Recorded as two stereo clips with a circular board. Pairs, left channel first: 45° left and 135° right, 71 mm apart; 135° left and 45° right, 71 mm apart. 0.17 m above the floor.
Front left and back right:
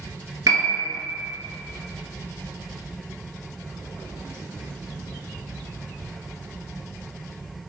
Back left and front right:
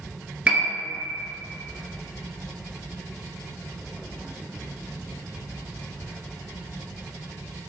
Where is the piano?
110° right, 0.7 m.